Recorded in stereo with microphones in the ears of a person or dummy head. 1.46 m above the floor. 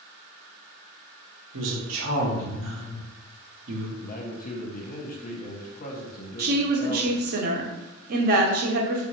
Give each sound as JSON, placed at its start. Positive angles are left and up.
{"t": 1.5, "sound": "a woman speaking", "side_deg": -70, "distance_m": 1.3}
{"t": 4.0, "sound": "a man speaking", "side_deg": 30, "distance_m": 0.6}
{"t": 6.4, "sound": "a woman speaking", "side_deg": -60, "distance_m": 0.8}